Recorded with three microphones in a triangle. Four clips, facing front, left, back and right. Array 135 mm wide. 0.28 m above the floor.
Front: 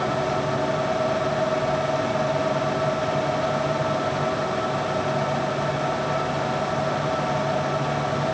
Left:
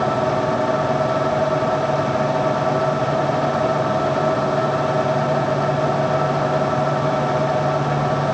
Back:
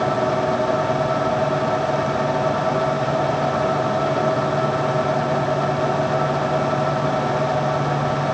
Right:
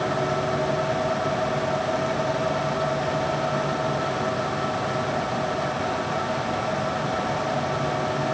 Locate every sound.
Only background noise.